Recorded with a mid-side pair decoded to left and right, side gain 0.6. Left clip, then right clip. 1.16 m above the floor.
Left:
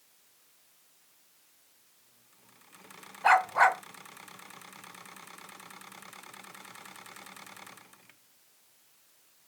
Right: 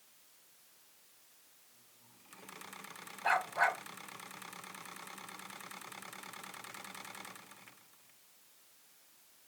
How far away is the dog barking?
About 1.6 m.